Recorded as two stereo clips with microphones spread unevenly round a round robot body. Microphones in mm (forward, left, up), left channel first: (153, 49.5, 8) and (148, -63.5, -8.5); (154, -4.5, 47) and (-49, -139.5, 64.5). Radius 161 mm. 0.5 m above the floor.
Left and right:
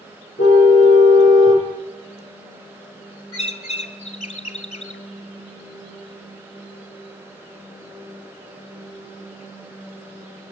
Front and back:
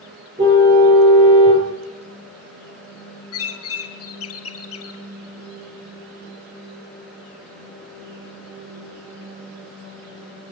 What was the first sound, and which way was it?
A car horn, 140° left.